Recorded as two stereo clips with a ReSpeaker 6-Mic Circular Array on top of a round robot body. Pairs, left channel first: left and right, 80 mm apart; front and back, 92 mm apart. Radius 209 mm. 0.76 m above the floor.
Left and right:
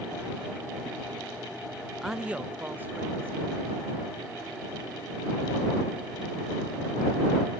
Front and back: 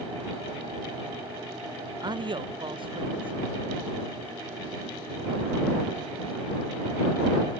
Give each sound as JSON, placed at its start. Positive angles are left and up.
{"t": 2.0, "sound": "a man speaking", "azimuth_deg": 180}